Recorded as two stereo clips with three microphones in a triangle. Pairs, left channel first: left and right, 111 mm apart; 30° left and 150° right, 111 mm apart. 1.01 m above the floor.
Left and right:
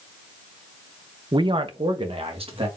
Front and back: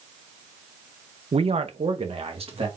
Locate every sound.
1.3 s a man speaking: 135° right, 0.5 m; by 2.7 s 120° right, 1.7 m